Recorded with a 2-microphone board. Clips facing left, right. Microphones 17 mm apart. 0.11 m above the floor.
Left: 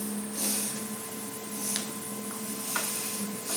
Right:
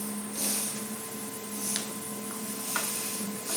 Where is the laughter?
I don't hear laughter.